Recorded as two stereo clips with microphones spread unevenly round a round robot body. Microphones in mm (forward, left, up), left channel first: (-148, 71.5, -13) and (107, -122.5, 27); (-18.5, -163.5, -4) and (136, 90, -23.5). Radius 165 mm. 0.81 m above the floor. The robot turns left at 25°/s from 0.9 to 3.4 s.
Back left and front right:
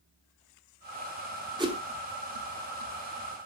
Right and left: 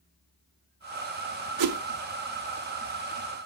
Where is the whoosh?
40° left, 0.9 m; by 1.8 s 35° left, 0.9 m.